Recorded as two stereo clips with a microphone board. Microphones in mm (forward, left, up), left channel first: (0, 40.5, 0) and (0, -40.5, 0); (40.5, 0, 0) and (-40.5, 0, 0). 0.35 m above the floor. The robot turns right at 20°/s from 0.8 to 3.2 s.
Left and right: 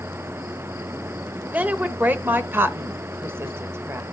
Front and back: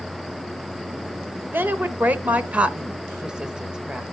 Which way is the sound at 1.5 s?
140° right.